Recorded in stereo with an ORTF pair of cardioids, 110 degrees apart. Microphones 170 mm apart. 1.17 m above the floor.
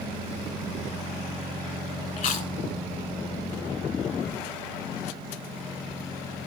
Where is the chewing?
55° left, 1.9 m.